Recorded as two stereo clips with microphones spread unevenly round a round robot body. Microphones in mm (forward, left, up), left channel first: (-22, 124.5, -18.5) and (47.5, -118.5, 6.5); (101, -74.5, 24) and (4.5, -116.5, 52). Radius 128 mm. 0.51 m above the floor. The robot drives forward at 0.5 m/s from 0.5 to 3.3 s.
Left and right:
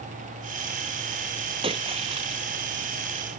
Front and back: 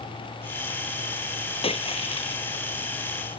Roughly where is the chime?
No chime in this recording.